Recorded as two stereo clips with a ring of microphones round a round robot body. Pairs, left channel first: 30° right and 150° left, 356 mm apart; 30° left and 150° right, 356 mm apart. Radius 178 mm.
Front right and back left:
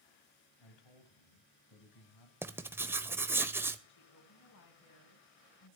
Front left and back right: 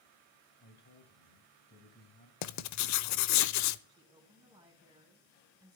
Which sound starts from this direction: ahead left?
Writing, at 2.4 s.